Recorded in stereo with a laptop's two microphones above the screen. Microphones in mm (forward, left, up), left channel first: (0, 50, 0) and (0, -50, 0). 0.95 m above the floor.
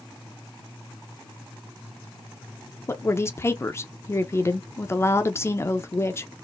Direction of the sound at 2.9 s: 25° left (ahead or behind).